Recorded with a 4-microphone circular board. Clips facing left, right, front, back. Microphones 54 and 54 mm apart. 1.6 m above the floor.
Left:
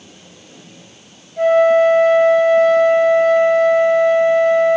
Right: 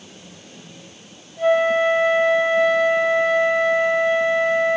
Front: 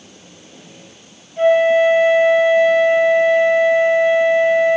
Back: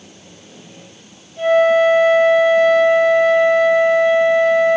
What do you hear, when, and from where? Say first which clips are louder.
1.4 s a flute: left 6 dB, even; 60° left, 5.5 m